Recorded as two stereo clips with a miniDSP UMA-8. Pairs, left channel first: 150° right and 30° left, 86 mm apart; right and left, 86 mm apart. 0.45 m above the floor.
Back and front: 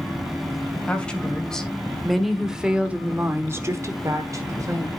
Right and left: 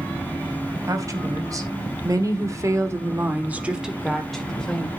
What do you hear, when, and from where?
0.9 s a woman speaking: 135° left, 2.5 m; by 4.9 s 15° right, 1.9 m